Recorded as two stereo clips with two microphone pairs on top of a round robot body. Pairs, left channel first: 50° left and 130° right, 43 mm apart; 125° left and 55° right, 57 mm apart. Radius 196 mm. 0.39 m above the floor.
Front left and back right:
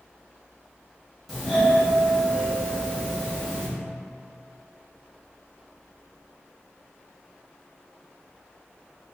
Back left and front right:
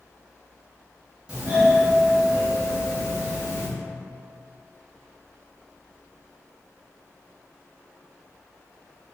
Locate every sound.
1.3 s a doorbell: 35° right, 1.3 m